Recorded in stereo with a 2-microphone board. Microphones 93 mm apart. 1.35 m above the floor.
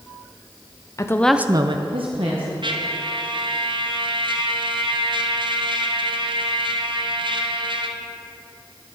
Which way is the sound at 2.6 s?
60° right (ahead or behind).